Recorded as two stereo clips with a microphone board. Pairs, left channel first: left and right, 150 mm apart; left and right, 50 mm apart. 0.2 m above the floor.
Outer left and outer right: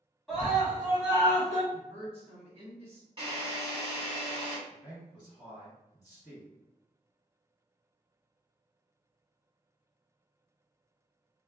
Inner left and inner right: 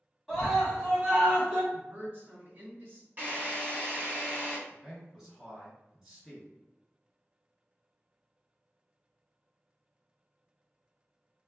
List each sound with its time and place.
0.3 s a scream: 5° left (ahead or behind), 1.5 m; by 1.6 s 30° right (ahead or behind), 1.6 m
1.7 s a woman speaking: 40° right (ahead or behind), 2.0 m
3.2 s a drill: 35° right (ahead or behind), 1.7 m
4.7 s a man speaking: 10° right (ahead or behind), 2.0 m